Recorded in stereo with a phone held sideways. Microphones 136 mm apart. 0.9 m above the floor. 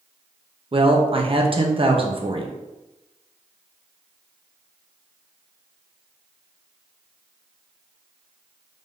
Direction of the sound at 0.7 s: 40° right (ahead or behind).